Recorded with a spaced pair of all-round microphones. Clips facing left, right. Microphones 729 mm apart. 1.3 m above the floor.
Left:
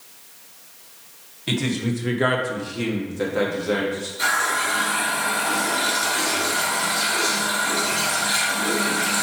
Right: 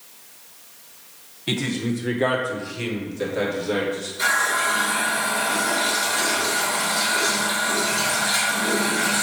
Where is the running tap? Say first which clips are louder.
Even; 5° right (ahead or behind), 3.5 m.